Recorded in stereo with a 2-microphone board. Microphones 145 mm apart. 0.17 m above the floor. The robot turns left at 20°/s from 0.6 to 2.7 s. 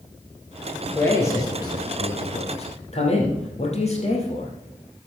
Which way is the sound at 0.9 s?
15° left (ahead or behind).